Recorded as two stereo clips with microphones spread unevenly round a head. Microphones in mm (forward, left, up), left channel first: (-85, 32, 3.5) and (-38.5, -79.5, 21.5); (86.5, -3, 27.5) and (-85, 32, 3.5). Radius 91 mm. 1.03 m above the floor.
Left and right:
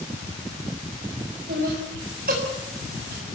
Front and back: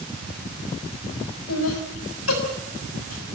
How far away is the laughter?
About 6.5 m.